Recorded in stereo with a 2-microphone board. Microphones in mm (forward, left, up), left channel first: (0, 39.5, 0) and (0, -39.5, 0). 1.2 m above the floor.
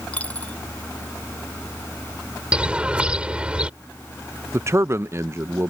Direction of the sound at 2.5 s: 15° right (ahead or behind).